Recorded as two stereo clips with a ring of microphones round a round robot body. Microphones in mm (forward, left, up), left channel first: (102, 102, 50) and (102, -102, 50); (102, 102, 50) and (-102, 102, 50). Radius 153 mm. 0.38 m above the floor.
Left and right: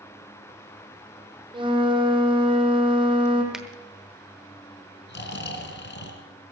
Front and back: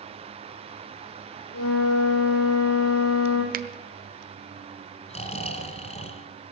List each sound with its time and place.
1.5 s a flute: 25° right, 3 m
3.5 s a finger snap: 175° right, 0.9 m
5.1 s snoring: 60° left, 2.5 m